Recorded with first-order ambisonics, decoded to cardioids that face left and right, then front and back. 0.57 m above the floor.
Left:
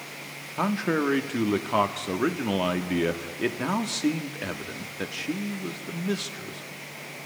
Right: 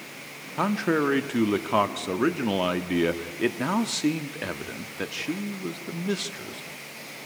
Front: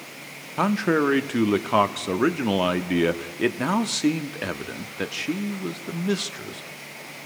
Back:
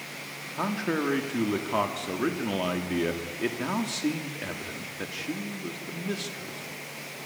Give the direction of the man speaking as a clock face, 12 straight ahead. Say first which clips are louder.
Right 2 dB, front 7 dB; 1 o'clock.